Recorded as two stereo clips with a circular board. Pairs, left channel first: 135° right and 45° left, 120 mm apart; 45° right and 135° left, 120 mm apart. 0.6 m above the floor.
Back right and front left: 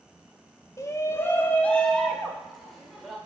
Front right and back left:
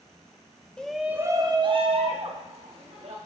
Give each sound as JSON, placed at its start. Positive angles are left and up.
{"t": 0.8, "sound": "a shout", "azimuth_deg": -115, "distance_m": 0.6}